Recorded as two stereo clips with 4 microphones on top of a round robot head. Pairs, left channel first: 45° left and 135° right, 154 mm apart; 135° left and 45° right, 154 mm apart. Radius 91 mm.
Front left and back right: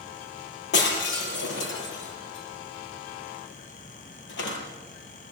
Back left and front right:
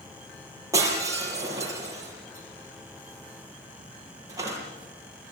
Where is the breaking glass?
30° left, 6 m.